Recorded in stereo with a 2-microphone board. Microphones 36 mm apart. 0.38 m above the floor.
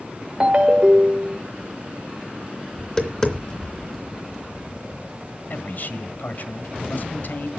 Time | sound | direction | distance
0.4 | a ringtone | 30° right (ahead or behind) | 0.7 m
2.8 | tapping | 25° left (ahead or behind) | 2.5 m
5.5 | a man speaking | 60° left (ahead or behind) | 1.4 m